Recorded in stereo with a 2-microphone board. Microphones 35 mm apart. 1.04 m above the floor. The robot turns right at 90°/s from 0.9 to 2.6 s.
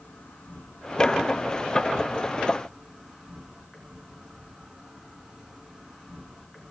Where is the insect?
40° left, 4 m; by 6.7 s 165° right, 4 m.